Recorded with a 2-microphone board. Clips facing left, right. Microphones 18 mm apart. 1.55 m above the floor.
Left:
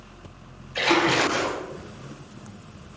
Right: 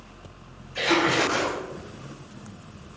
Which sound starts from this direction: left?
A splash, at 0.8 s.